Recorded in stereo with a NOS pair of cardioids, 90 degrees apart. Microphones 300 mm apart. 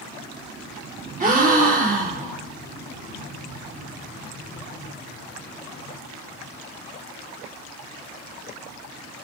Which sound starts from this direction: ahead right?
A gasp, at 1.2 s.